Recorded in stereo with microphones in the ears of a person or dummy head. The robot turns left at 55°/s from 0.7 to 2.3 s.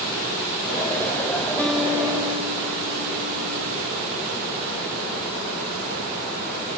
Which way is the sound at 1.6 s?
5° left.